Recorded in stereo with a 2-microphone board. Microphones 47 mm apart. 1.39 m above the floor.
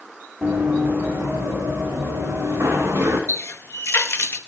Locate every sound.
0.4 s running footsteps: 45° right (ahead or behind), 4.5 m; by 3.2 s 60° right (ahead or behind), 7.5 m
3.3 s a running tap: 60° left (ahead or behind), 1.0 m